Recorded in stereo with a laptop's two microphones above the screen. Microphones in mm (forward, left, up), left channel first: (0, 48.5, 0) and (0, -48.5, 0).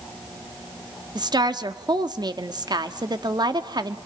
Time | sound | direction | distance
1.1 | a woman speaking | 45° right (ahead or behind) | 1.7 m